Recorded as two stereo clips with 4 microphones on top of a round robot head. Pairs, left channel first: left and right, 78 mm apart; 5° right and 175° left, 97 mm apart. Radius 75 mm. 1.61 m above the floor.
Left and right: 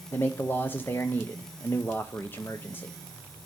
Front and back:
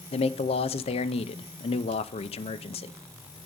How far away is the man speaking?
About 0.7 m.